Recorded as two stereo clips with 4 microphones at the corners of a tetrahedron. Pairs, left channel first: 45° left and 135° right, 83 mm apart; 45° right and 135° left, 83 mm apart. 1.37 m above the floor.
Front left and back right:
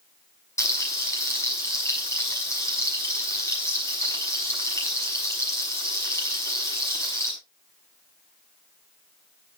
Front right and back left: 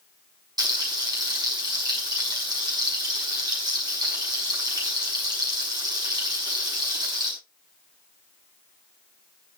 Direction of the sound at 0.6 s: 100° left.